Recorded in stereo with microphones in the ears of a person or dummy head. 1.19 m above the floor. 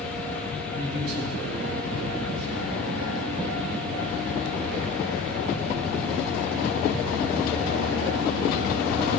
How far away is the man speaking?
About 2 m.